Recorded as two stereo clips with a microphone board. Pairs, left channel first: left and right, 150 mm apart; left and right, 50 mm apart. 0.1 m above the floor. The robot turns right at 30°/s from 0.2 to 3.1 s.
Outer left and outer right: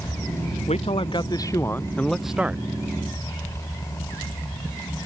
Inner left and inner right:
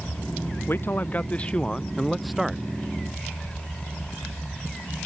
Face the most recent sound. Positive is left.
turn(degrees=-155)